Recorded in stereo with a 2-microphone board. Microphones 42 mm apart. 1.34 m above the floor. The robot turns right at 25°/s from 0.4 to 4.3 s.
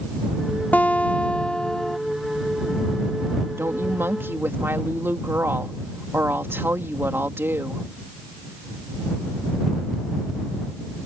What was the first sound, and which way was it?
A guitar, 140° left.